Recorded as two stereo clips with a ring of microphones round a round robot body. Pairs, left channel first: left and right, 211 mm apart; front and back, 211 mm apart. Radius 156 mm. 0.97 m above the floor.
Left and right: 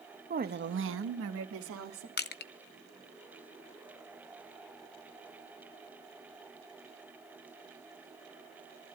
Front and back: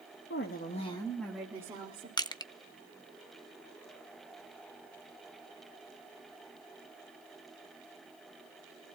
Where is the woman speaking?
40° right, 1.3 m; by 2.1 s 110° right, 2.5 m.